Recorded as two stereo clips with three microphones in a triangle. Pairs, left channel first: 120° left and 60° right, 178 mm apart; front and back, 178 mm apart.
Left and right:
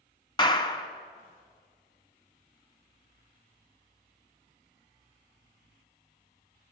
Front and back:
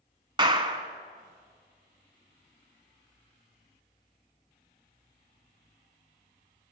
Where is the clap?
150° left, 1.1 m.